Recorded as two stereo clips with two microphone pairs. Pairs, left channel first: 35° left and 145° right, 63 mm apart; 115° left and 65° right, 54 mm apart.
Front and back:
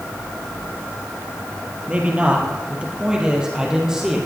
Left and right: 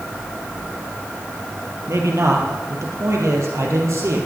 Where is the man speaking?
80° right, 3.5 m; by 4.2 s 65° right, 5 m.